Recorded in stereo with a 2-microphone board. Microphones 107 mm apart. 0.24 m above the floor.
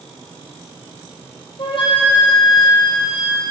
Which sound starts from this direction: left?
A flute, at 1.6 s.